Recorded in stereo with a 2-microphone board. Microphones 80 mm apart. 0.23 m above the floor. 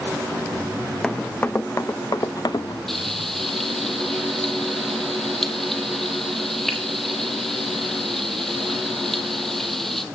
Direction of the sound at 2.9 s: 5° left (ahead or behind).